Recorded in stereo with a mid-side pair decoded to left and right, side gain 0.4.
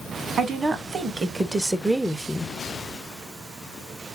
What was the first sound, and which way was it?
A woman speaking, 50° right.